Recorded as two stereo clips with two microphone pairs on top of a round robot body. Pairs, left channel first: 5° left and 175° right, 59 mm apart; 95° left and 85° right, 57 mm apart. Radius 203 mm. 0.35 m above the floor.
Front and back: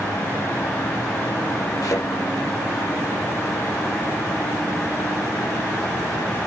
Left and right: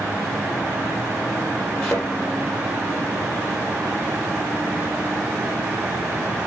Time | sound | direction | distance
1.8 | a thud | 15° left | 6.5 m